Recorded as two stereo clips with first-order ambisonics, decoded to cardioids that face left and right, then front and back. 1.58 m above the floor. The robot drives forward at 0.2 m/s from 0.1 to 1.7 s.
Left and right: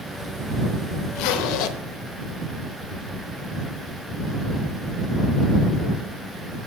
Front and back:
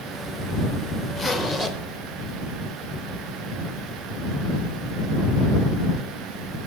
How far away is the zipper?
About 0.9 m.